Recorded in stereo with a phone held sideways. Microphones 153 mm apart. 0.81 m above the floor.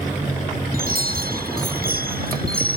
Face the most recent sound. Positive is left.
turn(degrees=-80)